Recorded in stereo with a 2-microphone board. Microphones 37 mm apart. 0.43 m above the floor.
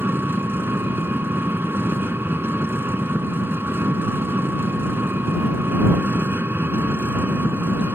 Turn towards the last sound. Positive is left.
turn(degrees=-75)  # may be behind; listen again after turning